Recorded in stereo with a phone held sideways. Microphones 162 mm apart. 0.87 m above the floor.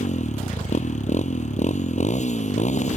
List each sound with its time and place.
0.0 s a motorcycle: 45° left (ahead or behind)